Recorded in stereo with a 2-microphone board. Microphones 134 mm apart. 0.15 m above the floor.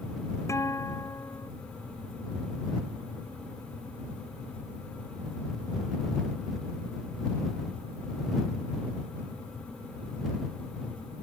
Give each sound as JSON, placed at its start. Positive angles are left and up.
{"t": 0.5, "sound": "a guitar", "side_deg": 20}